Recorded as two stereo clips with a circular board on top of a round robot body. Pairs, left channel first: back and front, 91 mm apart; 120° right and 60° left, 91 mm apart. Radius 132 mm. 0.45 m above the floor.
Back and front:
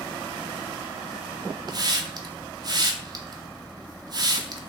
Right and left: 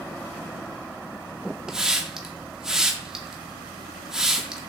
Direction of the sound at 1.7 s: 25° right.